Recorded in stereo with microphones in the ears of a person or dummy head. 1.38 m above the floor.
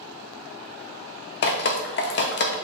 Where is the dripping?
45° left (ahead or behind), 0.6 m.